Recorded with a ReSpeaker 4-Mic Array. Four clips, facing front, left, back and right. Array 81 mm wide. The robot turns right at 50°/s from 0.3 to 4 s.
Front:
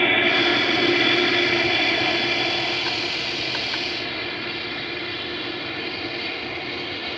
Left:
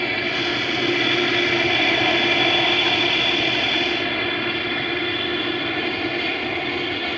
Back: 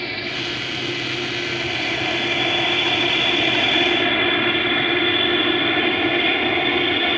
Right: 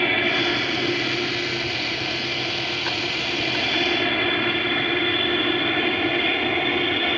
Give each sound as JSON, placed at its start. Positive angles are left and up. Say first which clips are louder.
{"t": 0.0, "sound": "an aircraft", "louder": "right 2 dB, front 8 dB", "azimuth_deg": -15}